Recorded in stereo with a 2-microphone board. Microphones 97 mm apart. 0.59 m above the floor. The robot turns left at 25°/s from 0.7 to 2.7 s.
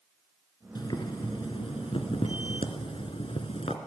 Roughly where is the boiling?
Behind left.